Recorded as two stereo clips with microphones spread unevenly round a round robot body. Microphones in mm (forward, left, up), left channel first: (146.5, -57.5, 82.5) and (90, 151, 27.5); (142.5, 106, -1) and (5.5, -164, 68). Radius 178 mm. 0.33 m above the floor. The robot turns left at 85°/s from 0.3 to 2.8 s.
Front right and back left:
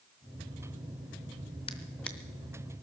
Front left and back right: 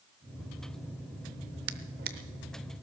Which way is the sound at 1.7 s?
145° right.